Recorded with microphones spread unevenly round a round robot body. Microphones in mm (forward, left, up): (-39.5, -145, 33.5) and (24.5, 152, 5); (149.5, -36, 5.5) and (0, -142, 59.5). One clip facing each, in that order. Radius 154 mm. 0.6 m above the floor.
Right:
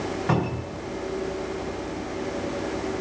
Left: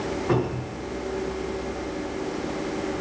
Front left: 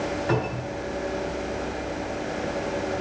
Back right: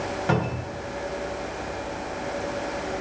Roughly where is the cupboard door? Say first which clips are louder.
Left 4 dB, even; behind right.